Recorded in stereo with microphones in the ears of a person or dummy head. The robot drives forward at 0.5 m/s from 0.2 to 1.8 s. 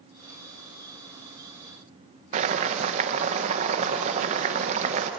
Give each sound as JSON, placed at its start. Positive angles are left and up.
{"t": 2.3, "sound": "boiling", "side_deg": -40, "distance_m": 1.3}